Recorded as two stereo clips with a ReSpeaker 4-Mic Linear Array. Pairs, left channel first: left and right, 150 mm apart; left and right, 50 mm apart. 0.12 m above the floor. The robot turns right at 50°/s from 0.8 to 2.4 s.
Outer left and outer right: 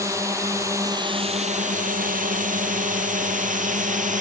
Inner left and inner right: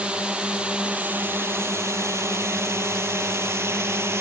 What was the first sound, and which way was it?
A drone, 20° right (ahead or behind).